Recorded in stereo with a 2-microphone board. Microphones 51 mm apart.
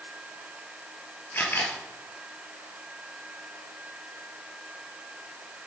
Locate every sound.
1.3 s a camera shutter: 45° left (ahead or behind), 1.9 m